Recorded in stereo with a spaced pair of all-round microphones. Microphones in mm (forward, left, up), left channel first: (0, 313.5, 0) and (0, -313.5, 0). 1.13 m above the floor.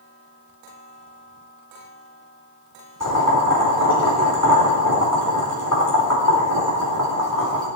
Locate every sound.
3.0 s boiling: 30° left (ahead or behind), 4.5 m